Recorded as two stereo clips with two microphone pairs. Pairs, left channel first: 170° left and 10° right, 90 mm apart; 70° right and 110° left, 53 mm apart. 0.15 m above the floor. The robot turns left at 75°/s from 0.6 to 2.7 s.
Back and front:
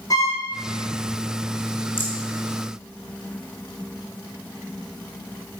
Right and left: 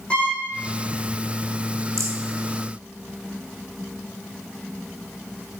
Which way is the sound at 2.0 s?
110° left.